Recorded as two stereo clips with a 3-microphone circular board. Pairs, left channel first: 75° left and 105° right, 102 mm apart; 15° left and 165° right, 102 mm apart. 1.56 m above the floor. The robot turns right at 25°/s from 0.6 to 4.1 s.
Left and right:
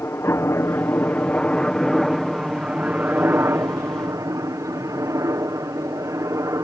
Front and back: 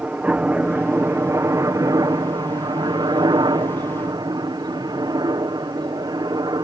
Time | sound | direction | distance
0.0 | a helicopter | 125° left | ?